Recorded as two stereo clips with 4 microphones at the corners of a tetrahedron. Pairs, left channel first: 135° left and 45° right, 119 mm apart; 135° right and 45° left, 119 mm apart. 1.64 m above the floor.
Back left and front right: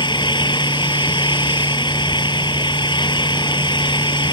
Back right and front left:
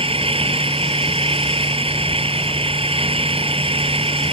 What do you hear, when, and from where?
0.0 s an engine running: 85° left